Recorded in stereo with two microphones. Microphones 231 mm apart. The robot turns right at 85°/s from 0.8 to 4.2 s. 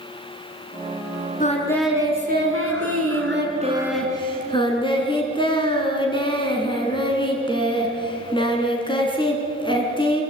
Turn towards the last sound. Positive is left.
turn(degrees=20)